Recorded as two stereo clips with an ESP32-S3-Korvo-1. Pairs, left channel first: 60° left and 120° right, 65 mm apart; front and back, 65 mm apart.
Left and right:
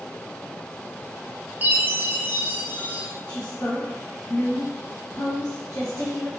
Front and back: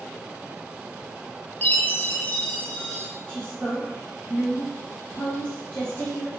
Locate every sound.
1.6 s a chime: 65° right, 0.6 m
3.3 s a woman speaking: 65° left, 1.2 m